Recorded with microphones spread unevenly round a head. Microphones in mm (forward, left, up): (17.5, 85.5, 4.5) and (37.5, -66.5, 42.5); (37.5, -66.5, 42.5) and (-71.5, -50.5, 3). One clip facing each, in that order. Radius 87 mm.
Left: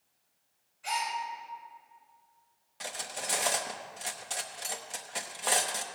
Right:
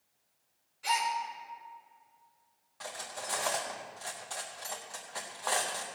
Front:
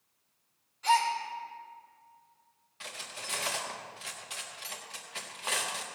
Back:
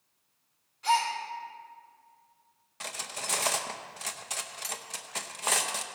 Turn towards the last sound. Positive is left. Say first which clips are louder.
# left 1 dB, back 5 dB
turn(degrees=165)